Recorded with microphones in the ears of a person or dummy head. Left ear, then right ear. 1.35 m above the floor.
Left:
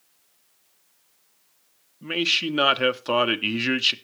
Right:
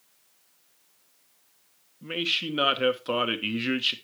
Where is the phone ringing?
No phone ringing in this recording.